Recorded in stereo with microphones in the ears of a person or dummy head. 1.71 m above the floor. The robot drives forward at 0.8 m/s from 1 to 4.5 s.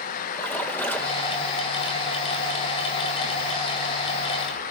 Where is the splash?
10° left (ahead or behind), 3 m; by 1.4 s 15° left (ahead or behind), 2.5 m.